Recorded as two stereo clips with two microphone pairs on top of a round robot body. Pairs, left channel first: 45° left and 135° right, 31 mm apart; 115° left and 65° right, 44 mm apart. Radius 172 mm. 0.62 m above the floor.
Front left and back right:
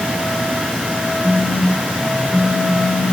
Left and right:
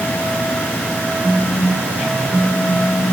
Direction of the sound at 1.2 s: 145° right.